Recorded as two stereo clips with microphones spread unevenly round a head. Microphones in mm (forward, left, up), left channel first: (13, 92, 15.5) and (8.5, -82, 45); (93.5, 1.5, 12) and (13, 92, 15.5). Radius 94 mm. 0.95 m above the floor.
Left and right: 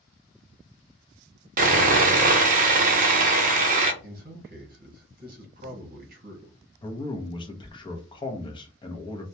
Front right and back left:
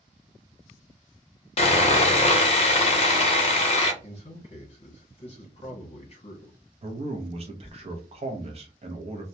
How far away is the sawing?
About 0.7 m.